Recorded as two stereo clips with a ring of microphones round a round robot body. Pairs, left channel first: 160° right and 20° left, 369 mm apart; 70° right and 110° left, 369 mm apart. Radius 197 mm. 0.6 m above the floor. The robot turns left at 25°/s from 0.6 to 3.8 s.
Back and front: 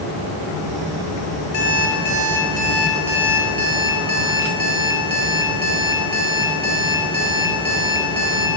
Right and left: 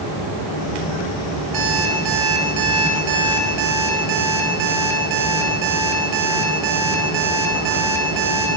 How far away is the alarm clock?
About 6 m.